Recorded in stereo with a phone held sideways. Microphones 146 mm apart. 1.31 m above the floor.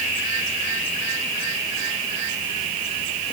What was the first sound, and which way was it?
Only background noise.